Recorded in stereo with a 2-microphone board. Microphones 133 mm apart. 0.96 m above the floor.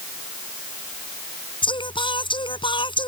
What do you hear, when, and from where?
1.6 s singing: 35° left (ahead or behind)